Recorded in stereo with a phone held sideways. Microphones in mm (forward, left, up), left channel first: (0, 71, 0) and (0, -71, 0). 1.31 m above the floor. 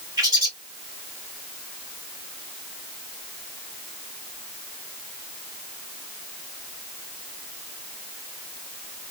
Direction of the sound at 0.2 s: 25° right (ahead or behind).